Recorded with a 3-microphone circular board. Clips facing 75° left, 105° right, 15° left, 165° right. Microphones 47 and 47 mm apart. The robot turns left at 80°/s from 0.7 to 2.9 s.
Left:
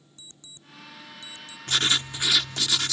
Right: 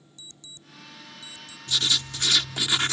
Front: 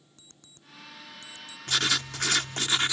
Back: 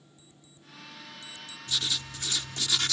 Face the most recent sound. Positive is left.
turn(degrees=-55)